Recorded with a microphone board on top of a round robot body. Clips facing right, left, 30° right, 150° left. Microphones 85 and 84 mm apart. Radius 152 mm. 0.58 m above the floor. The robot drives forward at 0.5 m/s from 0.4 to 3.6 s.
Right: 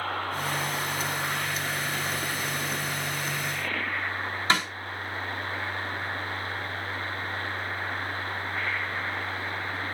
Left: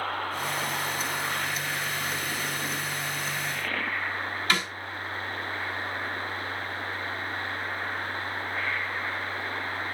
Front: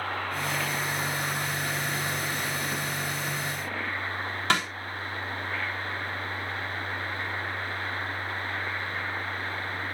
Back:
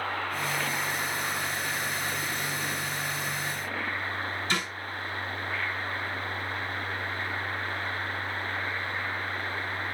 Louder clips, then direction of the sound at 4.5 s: Right 3 dB, front 6 dB; 30° right.